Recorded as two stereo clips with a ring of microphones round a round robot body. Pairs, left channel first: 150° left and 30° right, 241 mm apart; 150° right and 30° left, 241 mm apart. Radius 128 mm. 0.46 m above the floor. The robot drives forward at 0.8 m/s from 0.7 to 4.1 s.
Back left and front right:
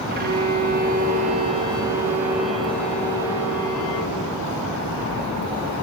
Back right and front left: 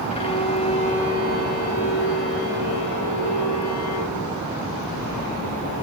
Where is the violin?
85° right, 2.5 m; by 4.2 s 140° right, 3.5 m.